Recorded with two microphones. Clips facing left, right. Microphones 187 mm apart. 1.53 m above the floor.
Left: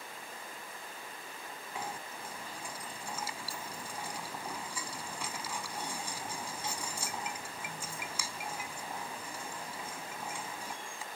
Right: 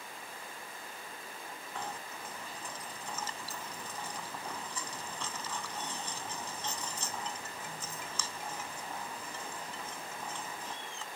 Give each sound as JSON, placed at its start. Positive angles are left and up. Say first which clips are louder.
{"t": 1.8, "sound": "knocking", "louder": "left 1 dB", "side_deg": 10}